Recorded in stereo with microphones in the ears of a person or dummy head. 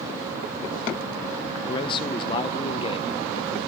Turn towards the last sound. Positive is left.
turn(degrees=30)  # may be behind; listen again after turning